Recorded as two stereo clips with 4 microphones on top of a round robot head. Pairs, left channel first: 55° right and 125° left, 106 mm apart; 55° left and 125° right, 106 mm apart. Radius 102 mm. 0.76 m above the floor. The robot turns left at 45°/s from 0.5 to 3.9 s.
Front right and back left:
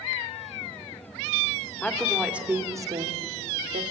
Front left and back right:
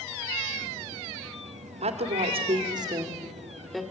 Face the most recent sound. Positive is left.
turn(degrees=135)